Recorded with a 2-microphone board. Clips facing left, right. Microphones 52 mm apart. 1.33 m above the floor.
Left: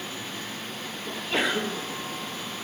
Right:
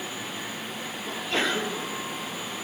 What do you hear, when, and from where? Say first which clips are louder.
1.1 s a sneeze: even; 5° left (ahead or behind), 1.4 m